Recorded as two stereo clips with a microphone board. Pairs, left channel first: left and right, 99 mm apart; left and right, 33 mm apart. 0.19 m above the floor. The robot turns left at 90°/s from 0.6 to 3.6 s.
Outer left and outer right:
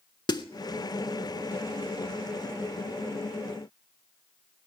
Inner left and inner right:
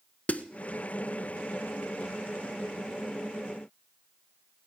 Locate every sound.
0.3 s a snare drum: 50° left (ahead or behind), 0.6 m